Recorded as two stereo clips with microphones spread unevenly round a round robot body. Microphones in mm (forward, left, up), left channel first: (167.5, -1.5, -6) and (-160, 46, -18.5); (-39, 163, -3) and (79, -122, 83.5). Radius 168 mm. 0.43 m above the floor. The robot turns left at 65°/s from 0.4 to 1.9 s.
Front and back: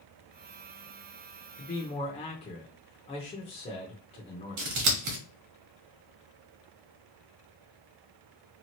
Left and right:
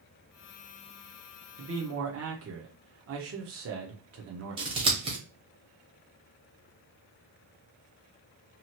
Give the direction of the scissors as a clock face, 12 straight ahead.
5 o'clock.